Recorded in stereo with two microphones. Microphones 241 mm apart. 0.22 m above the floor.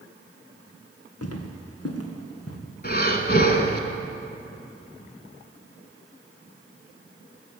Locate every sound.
1.2 s footsteps: 80° left, 2.5 m; by 2.6 s 70° left (ahead or behind), 3.5 m
2.8 s breathing: 40° left (ahead or behind), 1.4 m